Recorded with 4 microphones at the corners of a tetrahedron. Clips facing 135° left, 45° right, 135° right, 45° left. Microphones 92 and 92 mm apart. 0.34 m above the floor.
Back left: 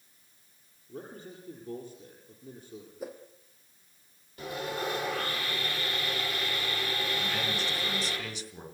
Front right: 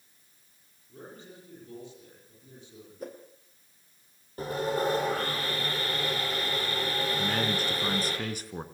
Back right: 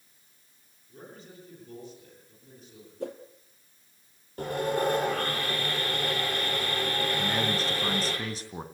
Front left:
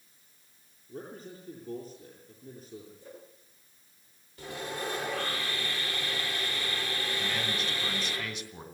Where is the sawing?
95° right, 8 m.